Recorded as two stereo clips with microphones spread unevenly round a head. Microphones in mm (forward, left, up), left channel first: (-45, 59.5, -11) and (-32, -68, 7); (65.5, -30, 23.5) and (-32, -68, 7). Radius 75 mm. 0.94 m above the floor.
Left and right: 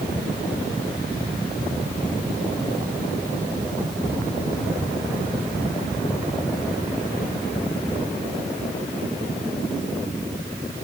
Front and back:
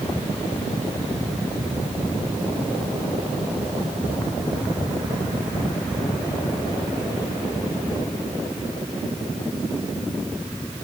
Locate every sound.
Only background noise.